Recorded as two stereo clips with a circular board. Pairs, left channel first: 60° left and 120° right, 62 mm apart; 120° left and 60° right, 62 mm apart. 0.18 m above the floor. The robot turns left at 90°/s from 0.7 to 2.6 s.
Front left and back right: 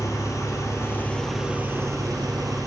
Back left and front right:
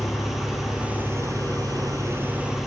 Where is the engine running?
25° left, 3 m; by 2.7 s 145° right, 3 m.